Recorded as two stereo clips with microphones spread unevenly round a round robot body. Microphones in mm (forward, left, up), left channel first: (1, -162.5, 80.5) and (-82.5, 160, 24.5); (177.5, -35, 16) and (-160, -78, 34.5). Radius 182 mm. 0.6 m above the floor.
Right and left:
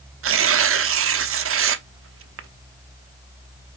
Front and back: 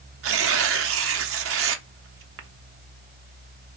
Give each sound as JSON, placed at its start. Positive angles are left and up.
{"t": 0.2, "sound": "tearing paper", "azimuth_deg": 140, "distance_m": 0.6}